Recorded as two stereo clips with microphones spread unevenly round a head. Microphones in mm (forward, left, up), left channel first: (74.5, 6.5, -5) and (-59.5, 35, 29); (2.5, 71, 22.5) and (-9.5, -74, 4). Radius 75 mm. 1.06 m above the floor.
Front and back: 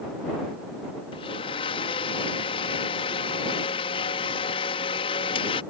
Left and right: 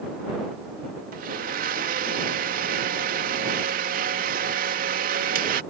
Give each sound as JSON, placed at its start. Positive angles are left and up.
{"t": 1.1, "sound": "a blender", "azimuth_deg": -65}